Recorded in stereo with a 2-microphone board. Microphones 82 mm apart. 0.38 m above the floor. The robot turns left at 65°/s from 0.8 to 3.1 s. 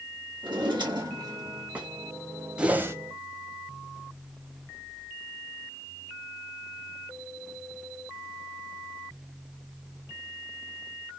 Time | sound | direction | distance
0.4 | a drawer | 100° right | 2 m
2.6 | a whoosh | 10° right (ahead or behind) | 0.6 m